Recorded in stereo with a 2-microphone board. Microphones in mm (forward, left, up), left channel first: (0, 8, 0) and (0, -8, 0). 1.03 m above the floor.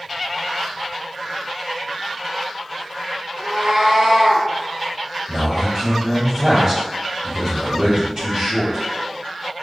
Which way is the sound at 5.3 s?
45° right (ahead or behind).